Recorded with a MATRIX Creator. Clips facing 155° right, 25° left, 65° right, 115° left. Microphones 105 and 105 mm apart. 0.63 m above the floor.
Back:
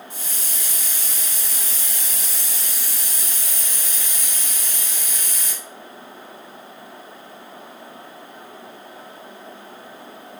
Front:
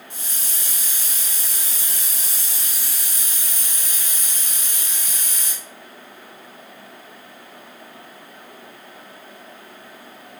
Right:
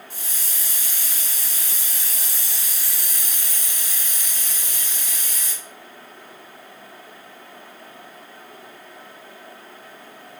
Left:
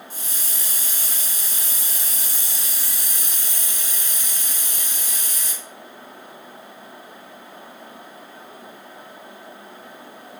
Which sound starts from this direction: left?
A hiss, at 0.1 s.